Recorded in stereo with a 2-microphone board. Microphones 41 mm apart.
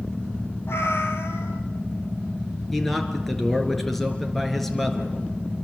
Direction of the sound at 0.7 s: 80° left.